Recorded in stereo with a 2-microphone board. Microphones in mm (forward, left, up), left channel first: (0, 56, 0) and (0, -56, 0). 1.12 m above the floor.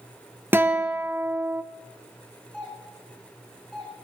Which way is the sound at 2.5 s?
Centre (ahead or behind).